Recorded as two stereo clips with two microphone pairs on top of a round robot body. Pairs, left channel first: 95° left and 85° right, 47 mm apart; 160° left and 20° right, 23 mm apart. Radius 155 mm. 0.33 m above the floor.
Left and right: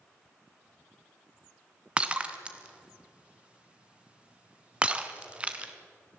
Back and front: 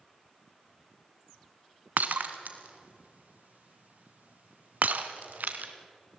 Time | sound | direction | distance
2.0 | breaking glass | 15° right | 1.6 m